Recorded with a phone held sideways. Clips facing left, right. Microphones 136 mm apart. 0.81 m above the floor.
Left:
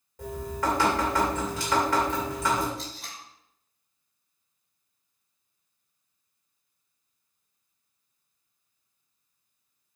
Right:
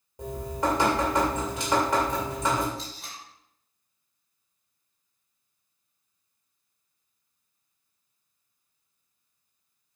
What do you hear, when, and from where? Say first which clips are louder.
0.2 s dripping: right 1 dB; 20° right (ahead or behind), 2.5 m
2.8 s tape being pulled: even; centre (ahead or behind), 3 m